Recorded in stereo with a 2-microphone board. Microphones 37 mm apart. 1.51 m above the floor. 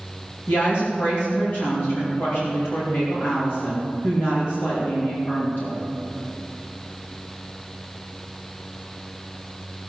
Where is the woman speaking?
75° left (ahead or behind), 2.5 m.